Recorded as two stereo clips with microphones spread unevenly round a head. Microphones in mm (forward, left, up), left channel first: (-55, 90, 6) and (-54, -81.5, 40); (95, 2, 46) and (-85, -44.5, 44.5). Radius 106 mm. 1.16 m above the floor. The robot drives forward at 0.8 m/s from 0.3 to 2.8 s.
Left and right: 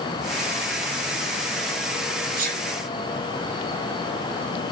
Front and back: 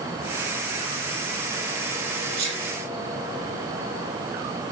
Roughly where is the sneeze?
Behind right.